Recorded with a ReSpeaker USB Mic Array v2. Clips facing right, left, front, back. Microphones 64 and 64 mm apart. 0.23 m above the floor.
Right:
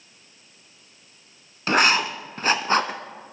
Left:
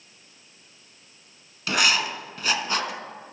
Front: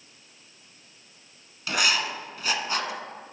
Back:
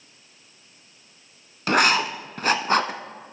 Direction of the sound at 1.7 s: 140° right.